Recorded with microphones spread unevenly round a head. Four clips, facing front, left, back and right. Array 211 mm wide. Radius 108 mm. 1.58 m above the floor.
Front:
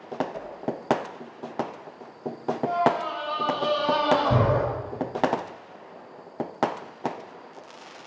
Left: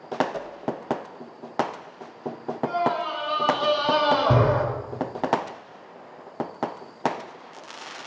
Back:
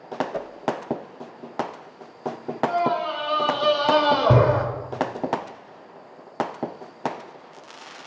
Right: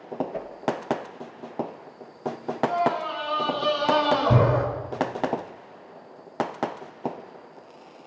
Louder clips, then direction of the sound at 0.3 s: Even, back 5 dB; 170° right.